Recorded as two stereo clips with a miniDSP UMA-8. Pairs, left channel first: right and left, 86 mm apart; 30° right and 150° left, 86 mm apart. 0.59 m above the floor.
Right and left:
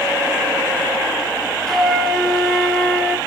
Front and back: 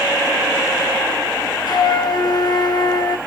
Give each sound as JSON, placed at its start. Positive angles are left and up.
{"t": 1.7, "sound": "a flute", "azimuth_deg": -5, "distance_m": 0.8}